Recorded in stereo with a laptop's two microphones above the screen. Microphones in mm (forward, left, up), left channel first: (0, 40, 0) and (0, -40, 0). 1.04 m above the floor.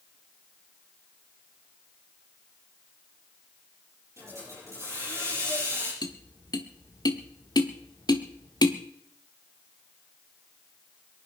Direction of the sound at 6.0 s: 55° left (ahead or behind).